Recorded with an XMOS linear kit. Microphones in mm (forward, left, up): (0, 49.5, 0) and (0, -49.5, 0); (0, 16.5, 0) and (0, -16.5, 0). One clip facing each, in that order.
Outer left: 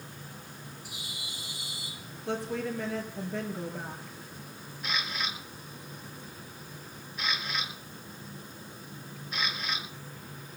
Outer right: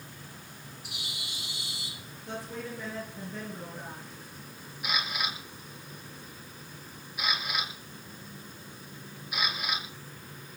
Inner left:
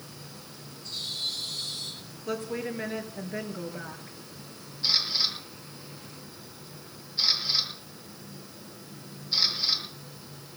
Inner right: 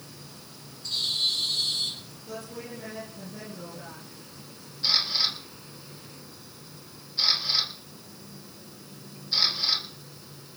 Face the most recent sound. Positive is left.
turn(degrees=-10)  # may be behind; listen again after turning